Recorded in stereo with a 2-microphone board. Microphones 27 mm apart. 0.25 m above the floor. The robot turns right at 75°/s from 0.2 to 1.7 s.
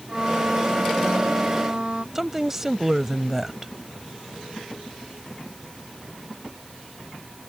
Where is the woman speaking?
15° right (ahead or behind).